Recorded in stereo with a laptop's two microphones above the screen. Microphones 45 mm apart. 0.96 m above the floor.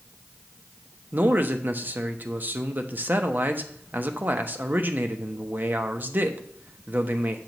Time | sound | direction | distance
1.1 | a man speaking | 40° right (ahead or behind) | 0.9 m